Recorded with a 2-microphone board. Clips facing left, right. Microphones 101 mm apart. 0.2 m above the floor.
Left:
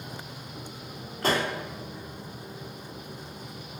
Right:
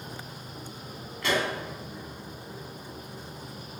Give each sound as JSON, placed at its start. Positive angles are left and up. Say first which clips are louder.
{"t": 1.2, "sound": "a pop", "louder": "left 1 dB", "side_deg": 40, "distance_m": 1.7}